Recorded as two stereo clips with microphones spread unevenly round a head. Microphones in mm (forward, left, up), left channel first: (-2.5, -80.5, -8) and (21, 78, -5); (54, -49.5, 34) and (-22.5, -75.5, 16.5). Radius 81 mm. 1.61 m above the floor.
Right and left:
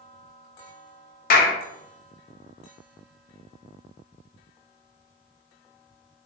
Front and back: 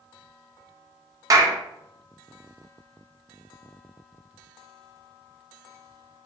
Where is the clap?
115° right, 0.7 m.